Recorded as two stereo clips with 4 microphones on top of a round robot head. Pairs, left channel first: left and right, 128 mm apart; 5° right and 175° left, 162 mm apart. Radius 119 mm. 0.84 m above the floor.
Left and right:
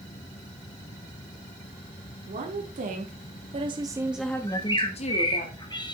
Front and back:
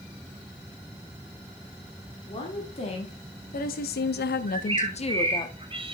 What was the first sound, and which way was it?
A woman speaking, 70° right.